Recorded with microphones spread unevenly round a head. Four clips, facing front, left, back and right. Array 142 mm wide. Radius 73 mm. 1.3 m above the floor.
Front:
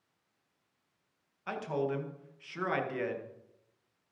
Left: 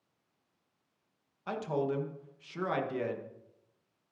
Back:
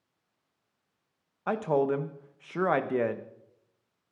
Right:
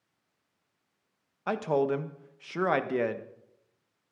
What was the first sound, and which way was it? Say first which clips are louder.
A man speaking: right 6 dB, back 7 dB; 140° right.